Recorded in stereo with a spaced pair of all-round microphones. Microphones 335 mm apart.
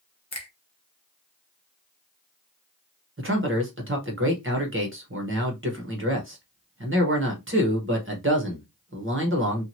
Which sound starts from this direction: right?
A man speaking, at 3.2 s.